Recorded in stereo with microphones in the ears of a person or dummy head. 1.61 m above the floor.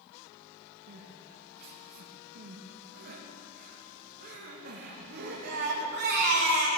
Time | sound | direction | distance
0.9 | crying | 55° right (ahead or behind) | 1.7 m